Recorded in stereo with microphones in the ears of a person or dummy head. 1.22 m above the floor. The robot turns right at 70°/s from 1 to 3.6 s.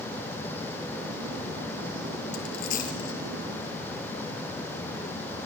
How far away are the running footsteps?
No running footsteps in this recording.